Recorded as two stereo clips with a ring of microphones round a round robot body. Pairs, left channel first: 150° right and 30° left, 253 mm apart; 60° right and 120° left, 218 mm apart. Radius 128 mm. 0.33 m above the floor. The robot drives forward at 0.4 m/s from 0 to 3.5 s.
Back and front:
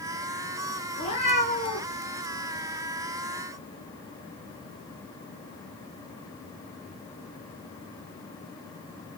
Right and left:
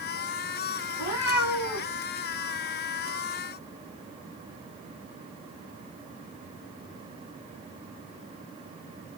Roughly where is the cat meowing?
Right.